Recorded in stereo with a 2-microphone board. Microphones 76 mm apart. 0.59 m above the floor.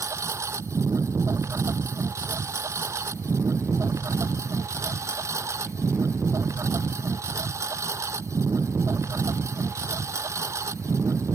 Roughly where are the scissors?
No scissors in this recording.